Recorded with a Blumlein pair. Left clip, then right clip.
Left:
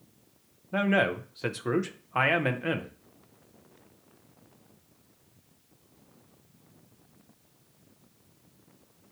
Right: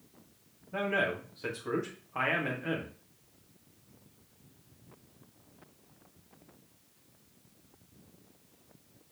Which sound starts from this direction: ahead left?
A man speaking, at 0.7 s.